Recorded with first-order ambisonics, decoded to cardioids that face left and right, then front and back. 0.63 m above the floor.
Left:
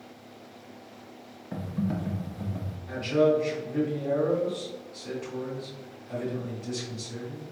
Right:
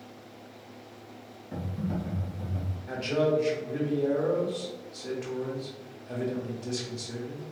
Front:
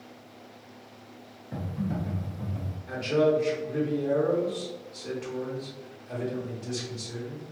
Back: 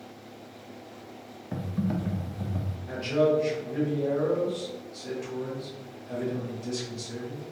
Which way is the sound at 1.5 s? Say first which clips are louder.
Left 2 dB, back 2 dB; 155° left.